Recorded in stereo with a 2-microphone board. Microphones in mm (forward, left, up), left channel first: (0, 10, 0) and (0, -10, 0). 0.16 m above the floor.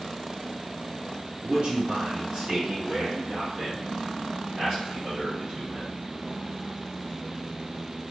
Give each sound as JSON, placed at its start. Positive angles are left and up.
{"t": 1.4, "sound": "a man speaking", "side_deg": -45, "distance_m": 1.8}